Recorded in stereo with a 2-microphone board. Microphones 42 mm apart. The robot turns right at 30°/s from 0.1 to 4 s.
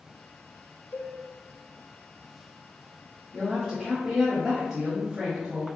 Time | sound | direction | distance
0.9 | a cowbell | 50° left (ahead or behind) | 0.6 m
3.3 | a woman speaking | 20° right (ahead or behind) | 1.1 m